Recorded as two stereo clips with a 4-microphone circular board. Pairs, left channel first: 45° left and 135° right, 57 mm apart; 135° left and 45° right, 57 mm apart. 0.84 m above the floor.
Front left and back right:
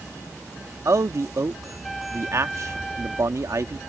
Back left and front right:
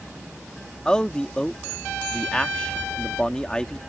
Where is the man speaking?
150° right.